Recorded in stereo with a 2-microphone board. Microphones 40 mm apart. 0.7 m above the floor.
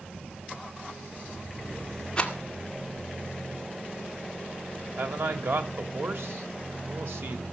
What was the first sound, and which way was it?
A rattle, 25° left (ahead or behind).